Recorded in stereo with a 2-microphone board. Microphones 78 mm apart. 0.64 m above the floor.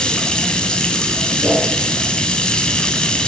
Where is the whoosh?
30° right (ahead or behind), 10 m.